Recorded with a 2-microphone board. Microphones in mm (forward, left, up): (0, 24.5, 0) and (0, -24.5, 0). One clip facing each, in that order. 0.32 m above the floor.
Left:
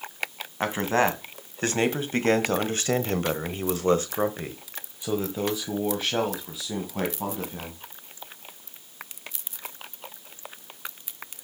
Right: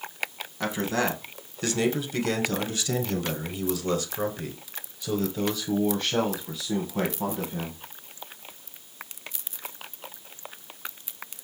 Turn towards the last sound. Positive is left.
turn(degrees=0)  # may be behind; listen again after turning